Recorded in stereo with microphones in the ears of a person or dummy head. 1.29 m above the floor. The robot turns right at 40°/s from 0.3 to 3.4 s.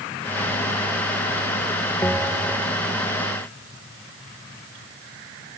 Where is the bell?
10° left (ahead or behind); by 2.8 s 20° right (ahead or behind).